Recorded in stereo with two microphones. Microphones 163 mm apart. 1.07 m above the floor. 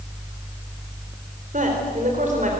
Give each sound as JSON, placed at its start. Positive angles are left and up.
{"t": 1.5, "sound": "a man speaking", "side_deg": -50, "distance_m": 4.0}